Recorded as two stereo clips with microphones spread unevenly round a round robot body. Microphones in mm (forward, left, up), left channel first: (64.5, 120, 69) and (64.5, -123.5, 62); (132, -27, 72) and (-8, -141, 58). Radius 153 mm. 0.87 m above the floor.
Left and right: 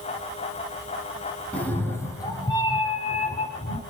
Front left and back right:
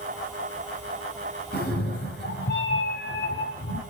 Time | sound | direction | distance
1.5 | a cat meowing | 5° left | 3.5 m